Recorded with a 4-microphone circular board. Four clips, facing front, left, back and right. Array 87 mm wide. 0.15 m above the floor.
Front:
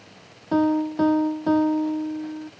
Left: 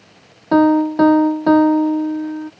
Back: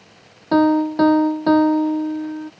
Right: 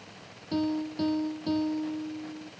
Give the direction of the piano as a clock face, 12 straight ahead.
8 o'clock.